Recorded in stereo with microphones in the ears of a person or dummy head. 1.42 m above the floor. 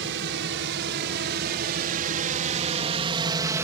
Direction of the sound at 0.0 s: 70° right (ahead or behind).